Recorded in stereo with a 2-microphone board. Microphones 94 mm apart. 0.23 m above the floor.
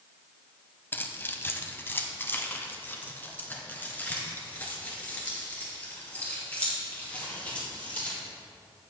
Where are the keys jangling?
25° left (ahead or behind), 0.8 m; by 8.2 s 15° left (ahead or behind), 4 m.